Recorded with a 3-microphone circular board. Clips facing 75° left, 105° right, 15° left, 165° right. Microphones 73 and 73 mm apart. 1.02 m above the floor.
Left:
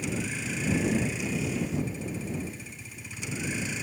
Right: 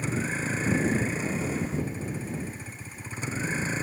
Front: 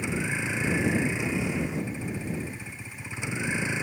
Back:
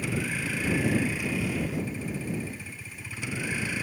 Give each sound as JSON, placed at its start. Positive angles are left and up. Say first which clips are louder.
{"t": 0.0, "sound": "a vehicle", "louder": "right 3 dB, front 1 dB", "azimuth_deg": -55}